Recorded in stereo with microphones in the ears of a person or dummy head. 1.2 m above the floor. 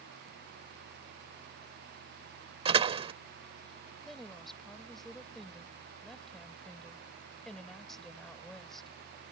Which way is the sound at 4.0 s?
5° left (ahead or behind).